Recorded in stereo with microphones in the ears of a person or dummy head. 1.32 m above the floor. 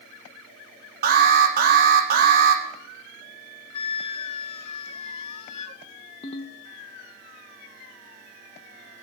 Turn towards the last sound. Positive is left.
turn(degrees=40)  # may be behind; listen again after turning